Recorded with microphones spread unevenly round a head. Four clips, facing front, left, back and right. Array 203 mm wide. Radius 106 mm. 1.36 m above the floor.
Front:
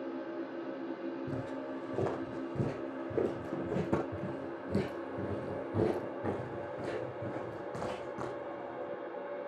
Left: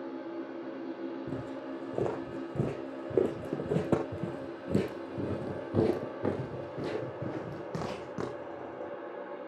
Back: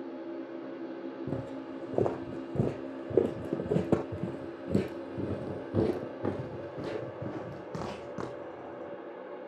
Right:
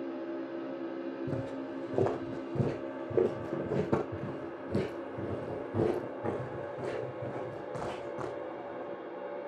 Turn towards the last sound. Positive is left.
turn(degrees=130)